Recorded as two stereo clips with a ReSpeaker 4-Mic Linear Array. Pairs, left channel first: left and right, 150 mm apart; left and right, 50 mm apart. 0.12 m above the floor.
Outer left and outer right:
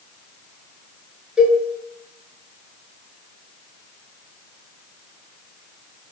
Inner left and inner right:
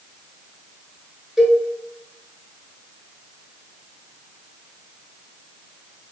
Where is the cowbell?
5° right (ahead or behind), 0.8 m.